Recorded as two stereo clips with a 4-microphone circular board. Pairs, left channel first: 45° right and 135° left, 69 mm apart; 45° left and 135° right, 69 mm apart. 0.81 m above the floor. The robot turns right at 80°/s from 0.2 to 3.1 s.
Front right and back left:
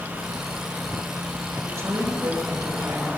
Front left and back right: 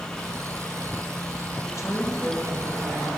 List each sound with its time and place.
1.6 s a woman speaking: 70° left, 9 m; by 3.1 s 175° right, 9 m